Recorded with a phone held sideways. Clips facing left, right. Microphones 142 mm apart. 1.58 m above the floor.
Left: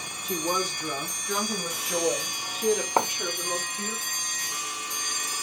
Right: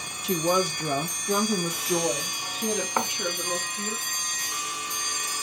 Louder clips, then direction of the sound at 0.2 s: Right 5 dB; 80° right.